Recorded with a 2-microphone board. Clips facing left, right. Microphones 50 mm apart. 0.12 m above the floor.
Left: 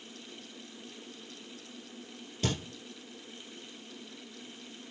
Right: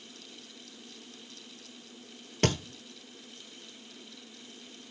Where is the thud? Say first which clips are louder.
Right 5 dB; 55° right (ahead or behind), 1.3 m.